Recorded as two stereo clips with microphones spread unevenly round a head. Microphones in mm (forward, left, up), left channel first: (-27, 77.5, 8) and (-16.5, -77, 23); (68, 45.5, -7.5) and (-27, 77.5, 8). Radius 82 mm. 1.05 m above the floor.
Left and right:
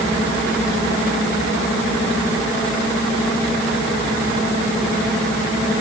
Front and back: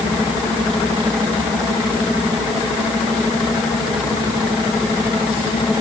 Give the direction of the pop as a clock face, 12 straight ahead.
I don't hear a pop.